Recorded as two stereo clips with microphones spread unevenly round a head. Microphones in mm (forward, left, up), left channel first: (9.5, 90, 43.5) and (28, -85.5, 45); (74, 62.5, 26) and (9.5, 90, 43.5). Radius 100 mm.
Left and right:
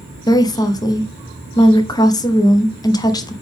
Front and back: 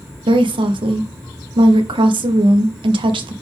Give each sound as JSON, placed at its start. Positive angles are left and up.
{"t": 0.3, "sound": "a woman speaking", "azimuth_deg": 165, "distance_m": 0.8}